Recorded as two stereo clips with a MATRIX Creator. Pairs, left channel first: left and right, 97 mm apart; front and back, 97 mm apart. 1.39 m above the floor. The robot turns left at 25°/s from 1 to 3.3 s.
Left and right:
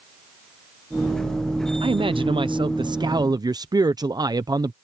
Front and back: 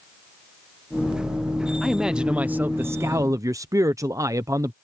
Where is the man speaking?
90° right; by 4.7 s 130° right.